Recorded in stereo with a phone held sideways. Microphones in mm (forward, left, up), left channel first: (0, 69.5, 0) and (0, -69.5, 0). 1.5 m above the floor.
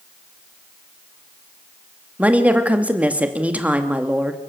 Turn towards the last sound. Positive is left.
turn(degrees=-10)  # may be behind; listen again after turning